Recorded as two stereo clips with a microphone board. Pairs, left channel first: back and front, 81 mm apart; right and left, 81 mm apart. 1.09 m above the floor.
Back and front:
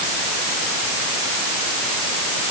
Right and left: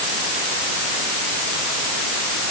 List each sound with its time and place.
Only background noise.